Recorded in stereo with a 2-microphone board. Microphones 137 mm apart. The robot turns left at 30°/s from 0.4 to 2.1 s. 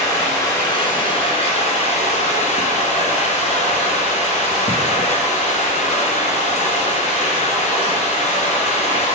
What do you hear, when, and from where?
0.0 s running water: 155° left, 2 m; by 9.2 s 105° left, 2 m